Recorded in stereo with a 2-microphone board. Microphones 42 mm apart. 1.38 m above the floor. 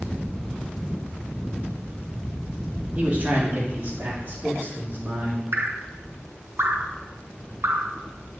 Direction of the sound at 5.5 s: 60° right (ahead or behind).